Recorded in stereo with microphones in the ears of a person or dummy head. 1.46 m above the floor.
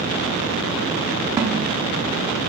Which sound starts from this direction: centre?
A snare drum, at 1.4 s.